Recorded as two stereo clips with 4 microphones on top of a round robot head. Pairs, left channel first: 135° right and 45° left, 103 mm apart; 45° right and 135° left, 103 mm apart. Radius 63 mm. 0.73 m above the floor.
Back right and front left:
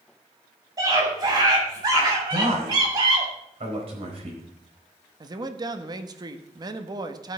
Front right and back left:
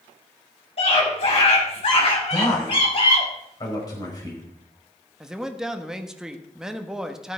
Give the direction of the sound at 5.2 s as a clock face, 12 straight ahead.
10 o'clock.